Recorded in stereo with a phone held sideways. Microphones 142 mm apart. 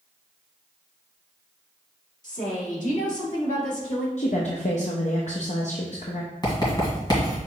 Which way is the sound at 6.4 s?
30° left (ahead or behind).